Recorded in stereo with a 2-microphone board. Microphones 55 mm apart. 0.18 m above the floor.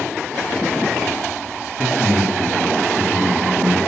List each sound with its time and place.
1.8 s a man speaking: centre (ahead or behind), 1.0 m